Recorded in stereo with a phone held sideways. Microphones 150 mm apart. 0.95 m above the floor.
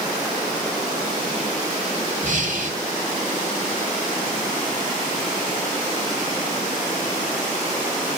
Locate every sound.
2.2 s breathing: 60° right (ahead or behind), 2 m